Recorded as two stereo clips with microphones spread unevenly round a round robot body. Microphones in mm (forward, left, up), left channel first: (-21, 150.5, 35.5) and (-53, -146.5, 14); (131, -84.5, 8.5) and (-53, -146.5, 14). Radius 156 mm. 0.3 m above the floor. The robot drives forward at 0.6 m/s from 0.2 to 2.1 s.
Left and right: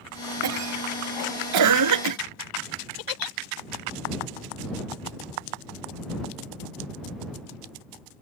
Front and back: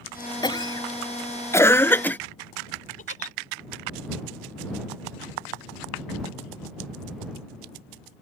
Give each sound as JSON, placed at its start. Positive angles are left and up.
{"t": 0.4, "sound": "a cough", "azimuth_deg": -50}
{"t": 3.0, "sound": "a giggle", "azimuth_deg": 75}